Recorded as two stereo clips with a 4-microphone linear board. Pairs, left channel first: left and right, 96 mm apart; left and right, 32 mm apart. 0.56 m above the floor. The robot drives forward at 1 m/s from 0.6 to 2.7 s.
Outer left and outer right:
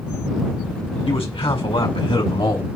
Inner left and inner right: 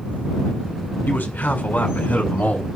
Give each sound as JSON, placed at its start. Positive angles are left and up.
{"t": 1.1, "sound": "a man speaking", "side_deg": 75, "distance_m": 4.5}